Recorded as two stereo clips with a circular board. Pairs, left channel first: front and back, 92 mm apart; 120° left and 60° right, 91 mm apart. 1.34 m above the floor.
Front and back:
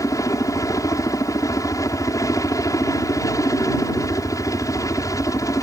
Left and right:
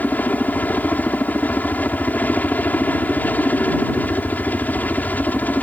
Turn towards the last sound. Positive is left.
turn(degrees=50)